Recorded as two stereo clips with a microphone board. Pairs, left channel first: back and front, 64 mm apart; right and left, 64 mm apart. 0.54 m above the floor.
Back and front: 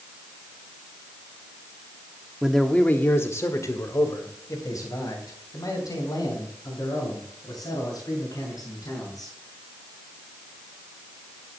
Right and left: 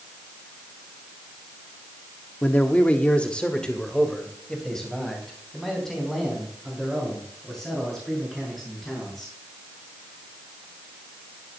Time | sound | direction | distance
2.4 | a man speaking | 80° right | 0.9 m